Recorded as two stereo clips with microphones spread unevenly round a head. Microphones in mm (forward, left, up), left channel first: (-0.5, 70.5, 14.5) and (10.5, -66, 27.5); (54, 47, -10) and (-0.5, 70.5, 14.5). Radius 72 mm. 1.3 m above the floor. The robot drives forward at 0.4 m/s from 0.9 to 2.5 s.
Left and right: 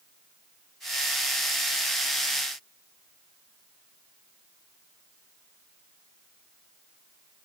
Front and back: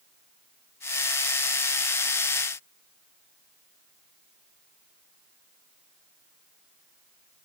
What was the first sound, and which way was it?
Only background noise.